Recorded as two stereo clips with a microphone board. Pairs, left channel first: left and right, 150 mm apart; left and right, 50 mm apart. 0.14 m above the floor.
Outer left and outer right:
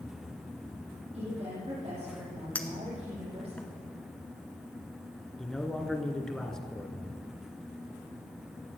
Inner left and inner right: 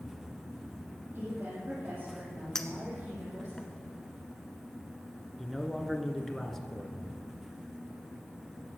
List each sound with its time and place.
1.1 s a woman speaking: 40° right (ahead or behind), 5.5 m
2.5 s a clink: 10° left (ahead or behind), 1.1 m
5.4 s a man speaking: 5° left (ahead or behind), 1.4 m